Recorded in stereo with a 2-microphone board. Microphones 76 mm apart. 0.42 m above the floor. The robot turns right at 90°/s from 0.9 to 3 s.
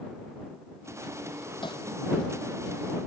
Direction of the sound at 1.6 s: 85° left.